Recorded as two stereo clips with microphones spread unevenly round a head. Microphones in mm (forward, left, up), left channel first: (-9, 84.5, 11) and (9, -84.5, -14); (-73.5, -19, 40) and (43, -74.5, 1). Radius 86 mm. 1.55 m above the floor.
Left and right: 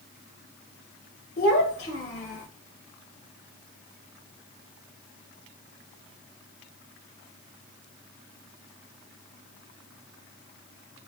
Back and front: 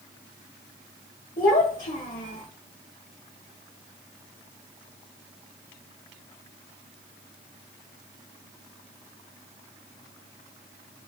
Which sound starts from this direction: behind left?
A child speaking, at 1.4 s.